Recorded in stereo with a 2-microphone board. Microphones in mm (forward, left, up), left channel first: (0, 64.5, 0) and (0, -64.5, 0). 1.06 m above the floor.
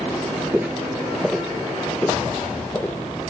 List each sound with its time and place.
0.5 s footsteps: 15° right (ahead or behind), 1.1 m; by 3.0 s 15° left (ahead or behind), 1.9 m